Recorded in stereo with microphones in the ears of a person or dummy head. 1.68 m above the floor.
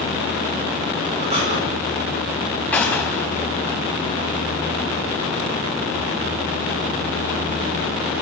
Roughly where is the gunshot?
Centre.